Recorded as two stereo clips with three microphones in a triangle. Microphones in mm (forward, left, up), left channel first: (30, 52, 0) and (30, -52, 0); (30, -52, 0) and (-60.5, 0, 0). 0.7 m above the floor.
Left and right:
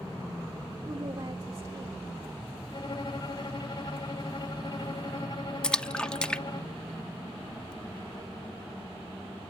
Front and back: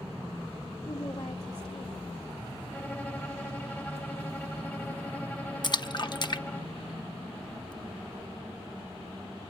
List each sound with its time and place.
0.8 s a woman speaking: 35° right, 2 m
2.7 s a violin: 45° left, 1.2 m
5.6 s a splash: 10° left, 0.7 m